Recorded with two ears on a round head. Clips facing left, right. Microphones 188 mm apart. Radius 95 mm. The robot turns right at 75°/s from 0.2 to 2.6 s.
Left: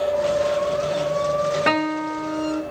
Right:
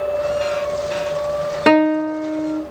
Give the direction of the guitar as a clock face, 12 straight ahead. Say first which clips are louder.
Right 9 dB; 2 o'clock.